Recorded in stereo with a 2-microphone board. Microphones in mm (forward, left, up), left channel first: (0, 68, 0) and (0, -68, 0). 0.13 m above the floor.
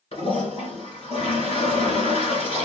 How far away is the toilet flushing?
About 1.6 m.